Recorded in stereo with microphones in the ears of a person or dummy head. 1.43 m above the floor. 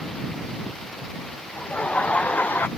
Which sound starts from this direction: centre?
Laughter, at 1.6 s.